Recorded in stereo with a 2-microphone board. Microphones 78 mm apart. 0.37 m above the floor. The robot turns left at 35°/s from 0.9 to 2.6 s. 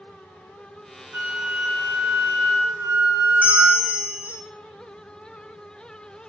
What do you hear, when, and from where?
1.1 s a flute: 35° right, 1.3 m; by 3.9 s 85° right, 1.3 m
3.4 s a bell: 25° right (ahead or behind), 1.1 m